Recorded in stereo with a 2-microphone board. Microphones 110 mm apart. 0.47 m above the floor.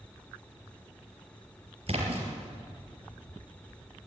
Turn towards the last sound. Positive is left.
turn(degrees=-55)  # may be behind; listen again after turning